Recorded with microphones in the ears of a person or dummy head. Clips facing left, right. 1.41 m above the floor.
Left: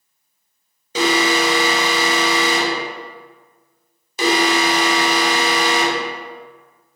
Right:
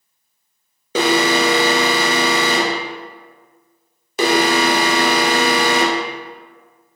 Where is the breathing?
No breathing in this recording.